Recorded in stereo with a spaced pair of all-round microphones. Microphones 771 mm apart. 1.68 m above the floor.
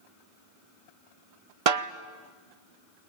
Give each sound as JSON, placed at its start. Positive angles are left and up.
{"t": 1.7, "sound": "a snare drum", "side_deg": -50, "distance_m": 0.7}